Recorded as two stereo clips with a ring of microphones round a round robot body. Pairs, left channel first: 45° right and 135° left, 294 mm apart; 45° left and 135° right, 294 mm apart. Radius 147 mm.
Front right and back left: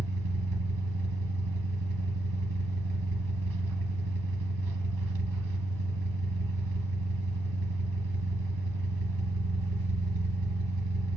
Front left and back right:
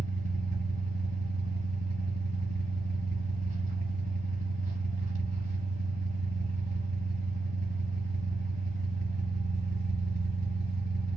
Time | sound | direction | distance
0.0 | an engine running | 160° left | 0.9 m